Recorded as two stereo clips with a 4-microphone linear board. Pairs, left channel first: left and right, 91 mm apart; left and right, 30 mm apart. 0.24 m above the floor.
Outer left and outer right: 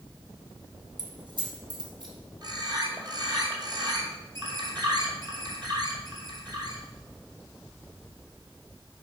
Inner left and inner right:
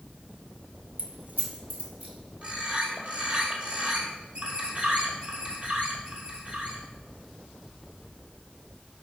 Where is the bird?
45° right (ahead or behind), 1.6 m.